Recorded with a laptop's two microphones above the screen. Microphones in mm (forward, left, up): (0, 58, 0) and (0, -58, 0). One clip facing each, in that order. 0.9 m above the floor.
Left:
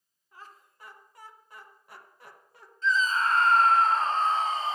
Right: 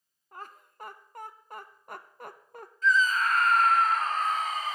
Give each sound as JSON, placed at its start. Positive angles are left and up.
{"t": 0.3, "sound": "laughter", "side_deg": -50, "distance_m": 0.7}
{"t": 2.8, "sound": "a scream", "side_deg": 25, "distance_m": 0.8}